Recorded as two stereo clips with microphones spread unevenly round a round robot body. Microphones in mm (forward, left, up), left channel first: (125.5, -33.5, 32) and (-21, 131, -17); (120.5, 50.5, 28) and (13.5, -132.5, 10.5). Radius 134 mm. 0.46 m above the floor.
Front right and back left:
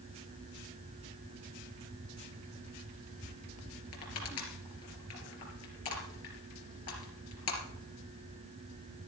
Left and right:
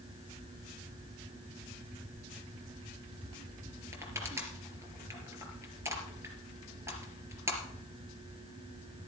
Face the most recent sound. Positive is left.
turn(degrees=-40)